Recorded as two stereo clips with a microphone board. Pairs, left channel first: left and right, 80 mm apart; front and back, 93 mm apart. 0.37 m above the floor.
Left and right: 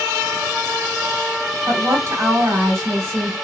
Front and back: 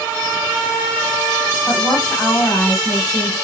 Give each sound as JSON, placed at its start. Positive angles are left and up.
{"t": 1.7, "sound": "a woman speaking", "azimuth_deg": -45, "distance_m": 2.0}